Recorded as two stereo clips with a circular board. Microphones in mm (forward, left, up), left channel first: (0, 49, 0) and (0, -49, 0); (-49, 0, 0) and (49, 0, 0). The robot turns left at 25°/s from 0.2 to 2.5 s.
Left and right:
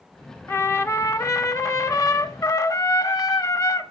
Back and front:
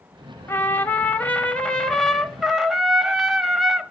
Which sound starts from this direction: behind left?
A trumpet, at 0.5 s.